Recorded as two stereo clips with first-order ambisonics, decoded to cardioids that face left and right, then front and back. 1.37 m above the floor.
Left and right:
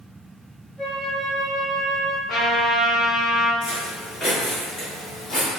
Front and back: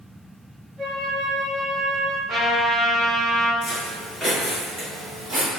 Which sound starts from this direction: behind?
A flute, at 0.8 s.